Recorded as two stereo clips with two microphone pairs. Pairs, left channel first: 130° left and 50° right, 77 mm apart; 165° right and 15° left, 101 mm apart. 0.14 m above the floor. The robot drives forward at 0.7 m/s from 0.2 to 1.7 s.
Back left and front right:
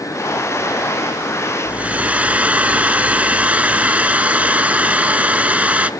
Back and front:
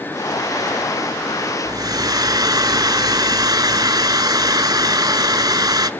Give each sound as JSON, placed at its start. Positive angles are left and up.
{"t": 1.6, "sound": "a hair dryer", "azimuth_deg": 10, "distance_m": 0.8}